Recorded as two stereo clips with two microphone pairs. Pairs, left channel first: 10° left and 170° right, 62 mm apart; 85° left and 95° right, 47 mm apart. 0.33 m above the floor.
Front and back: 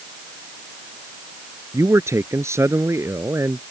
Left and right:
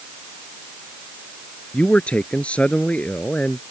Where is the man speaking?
150° left.